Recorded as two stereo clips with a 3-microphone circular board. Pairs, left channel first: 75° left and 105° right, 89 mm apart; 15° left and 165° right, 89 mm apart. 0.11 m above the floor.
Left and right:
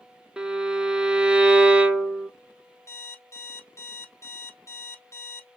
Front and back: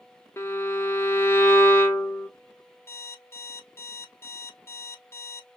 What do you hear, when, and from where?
0.4 s a violin: 30° right, 0.5 m
2.9 s an alarm clock: 50° left, 0.7 m